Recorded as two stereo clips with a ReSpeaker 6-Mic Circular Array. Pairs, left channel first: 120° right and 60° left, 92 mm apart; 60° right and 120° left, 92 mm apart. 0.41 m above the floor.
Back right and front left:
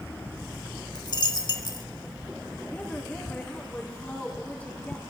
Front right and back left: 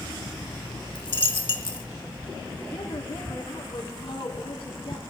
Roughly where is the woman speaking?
Ahead right.